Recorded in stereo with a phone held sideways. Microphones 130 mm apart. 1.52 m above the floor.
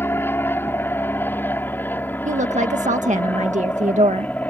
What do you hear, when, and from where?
0.0 s an aircraft: 15° left (ahead or behind); by 4.5 s 10° left (ahead or behind)
2.2 s a woman speaking: 70° right (ahead or behind)